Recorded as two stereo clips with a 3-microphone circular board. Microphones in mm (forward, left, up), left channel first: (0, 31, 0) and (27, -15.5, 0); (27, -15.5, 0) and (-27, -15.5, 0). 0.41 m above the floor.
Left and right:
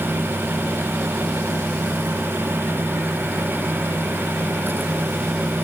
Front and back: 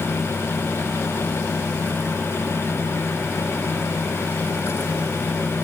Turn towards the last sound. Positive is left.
No sound to turn to.